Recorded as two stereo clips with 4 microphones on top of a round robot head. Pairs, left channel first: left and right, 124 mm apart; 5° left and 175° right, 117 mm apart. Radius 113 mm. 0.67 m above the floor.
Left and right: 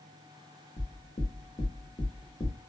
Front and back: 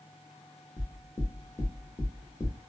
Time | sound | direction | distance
0.8 | knocking | 65° left | 1.1 m